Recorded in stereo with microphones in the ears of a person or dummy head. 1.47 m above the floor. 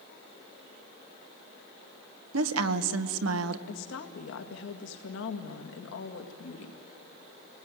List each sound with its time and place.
2.3 s a woman speaking: 85° right, 1.4 m
3.7 s a woman speaking: 65° left (ahead or behind), 2 m